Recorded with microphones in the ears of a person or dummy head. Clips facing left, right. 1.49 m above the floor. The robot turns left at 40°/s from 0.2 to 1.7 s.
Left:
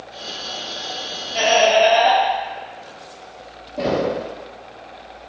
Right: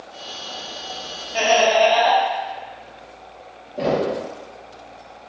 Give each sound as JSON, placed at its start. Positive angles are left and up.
{"t": 1.3, "sound": "laughter", "side_deg": -25, "distance_m": 1.4}
{"t": 3.8, "sound": "knocking", "side_deg": -5, "distance_m": 1.2}